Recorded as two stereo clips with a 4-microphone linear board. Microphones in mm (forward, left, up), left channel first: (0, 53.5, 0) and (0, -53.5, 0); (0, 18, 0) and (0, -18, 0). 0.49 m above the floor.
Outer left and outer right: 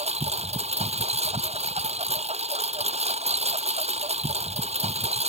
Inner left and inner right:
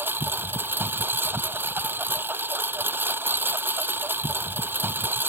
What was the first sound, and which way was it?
A lawn mower, 90° right.